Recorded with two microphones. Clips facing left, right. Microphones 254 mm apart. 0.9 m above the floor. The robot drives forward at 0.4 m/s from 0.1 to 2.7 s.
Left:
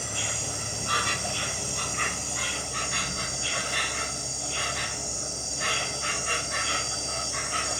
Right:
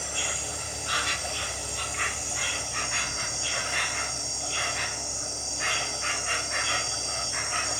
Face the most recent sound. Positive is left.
turn(degrees=40)  # may be behind; listen again after turning